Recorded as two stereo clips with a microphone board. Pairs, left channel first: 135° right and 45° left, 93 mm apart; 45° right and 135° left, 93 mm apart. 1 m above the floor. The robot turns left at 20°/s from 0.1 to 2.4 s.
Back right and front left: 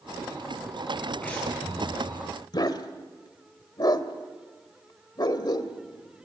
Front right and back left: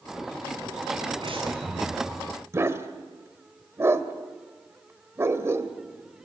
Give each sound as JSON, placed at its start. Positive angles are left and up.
{"t": 1.2, "sound": "breathing", "azimuth_deg": 155, "distance_m": 9.5}
{"t": 2.5, "sound": "a dog barking", "azimuth_deg": -165, "distance_m": 1.4}